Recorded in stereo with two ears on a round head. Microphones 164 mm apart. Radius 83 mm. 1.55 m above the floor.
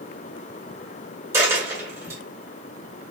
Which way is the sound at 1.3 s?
15° right (ahead or behind).